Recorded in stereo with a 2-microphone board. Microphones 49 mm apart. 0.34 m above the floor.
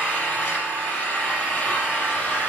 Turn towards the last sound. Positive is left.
turn(degrees=25)  # may be behind; listen again after turning